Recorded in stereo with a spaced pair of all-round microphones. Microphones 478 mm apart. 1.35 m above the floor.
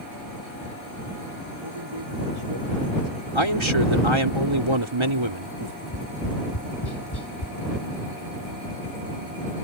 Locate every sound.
1.6 s a man speaking: 85° right
3.4 s a man speaking: 75° right (ahead or behind)
5.8 s tapping: 55° left (ahead or behind)